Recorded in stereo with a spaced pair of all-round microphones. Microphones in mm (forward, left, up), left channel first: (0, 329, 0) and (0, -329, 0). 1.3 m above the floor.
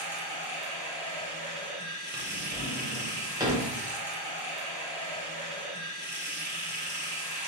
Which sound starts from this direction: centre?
A drawer, at 2.1 s.